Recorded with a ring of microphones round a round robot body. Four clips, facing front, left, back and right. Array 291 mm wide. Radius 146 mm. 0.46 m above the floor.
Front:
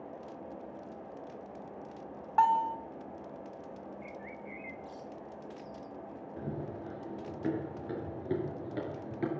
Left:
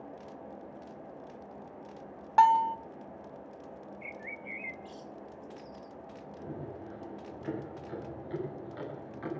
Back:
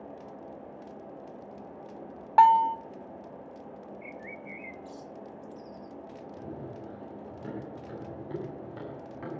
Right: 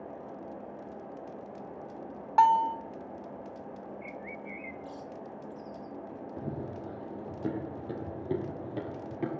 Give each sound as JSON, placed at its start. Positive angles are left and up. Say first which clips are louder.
{"t": 2.4, "sound": "a bell", "louder": "even, back 7 dB", "azimuth_deg": 170, "distance_m": 1.0}
{"t": 4.0, "sound": "a bird", "louder": "right 3 dB, back 1 dB", "azimuth_deg": 160, "distance_m": 0.7}
{"t": 6.4, "sound": "running footsteps", "louder": "right 3 dB, front 3 dB", "azimuth_deg": -70, "distance_m": 6.5}